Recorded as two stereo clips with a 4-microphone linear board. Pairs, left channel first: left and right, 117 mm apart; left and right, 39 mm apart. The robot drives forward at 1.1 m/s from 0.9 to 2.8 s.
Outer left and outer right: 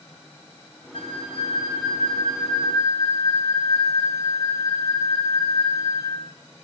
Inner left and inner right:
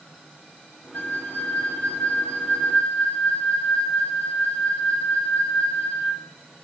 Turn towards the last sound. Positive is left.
turn(degrees=35)  # may be behind; listen again after turning